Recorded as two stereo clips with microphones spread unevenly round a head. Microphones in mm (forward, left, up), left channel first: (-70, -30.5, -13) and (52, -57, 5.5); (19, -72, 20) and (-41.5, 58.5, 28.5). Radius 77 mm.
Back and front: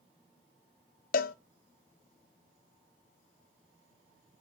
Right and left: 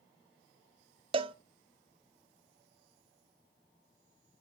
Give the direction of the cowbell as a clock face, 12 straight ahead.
6 o'clock.